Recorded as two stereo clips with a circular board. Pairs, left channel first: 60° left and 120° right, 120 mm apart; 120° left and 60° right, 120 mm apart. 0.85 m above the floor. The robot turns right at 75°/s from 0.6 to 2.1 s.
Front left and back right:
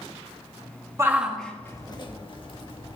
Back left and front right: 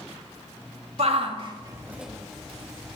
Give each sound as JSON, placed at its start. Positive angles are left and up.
{"t": 1.0, "sound": "a shout", "azimuth_deg": -55, "distance_m": 1.6}